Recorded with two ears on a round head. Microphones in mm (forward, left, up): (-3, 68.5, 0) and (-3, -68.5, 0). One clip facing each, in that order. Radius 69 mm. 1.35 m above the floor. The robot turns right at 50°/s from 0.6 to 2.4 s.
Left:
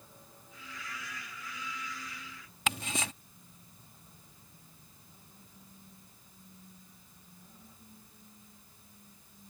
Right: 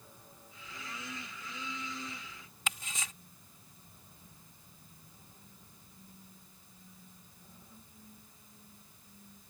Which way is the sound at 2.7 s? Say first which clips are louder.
Left 7 dB; 50° left (ahead or behind).